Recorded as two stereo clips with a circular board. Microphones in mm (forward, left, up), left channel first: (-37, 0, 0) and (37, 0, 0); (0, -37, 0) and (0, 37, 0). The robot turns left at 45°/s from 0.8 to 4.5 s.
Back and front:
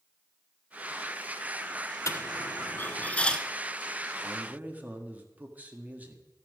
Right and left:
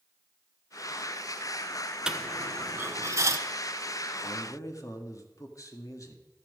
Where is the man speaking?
50° right, 1.7 m; by 6.2 s 60° right, 1.7 m.